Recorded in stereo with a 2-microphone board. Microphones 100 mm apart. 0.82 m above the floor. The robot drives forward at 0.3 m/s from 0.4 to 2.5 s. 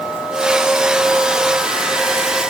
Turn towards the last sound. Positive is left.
No sound to turn to.